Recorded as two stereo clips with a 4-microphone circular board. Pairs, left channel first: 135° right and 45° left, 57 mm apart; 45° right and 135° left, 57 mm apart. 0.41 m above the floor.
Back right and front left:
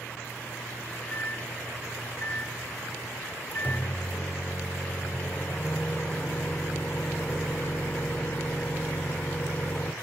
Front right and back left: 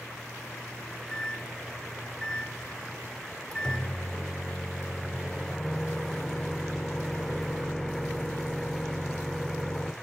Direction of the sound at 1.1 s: 115° right.